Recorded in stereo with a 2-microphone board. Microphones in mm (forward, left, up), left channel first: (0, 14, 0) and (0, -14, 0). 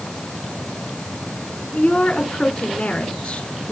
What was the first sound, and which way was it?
A woman speaking, 30° left (ahead or behind).